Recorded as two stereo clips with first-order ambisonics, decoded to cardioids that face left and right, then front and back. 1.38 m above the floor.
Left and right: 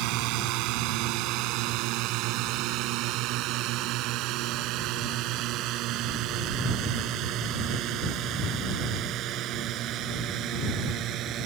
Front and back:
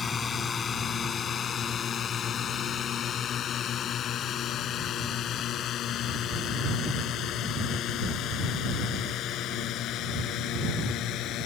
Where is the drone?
70° right; by 11.5 s 40° right.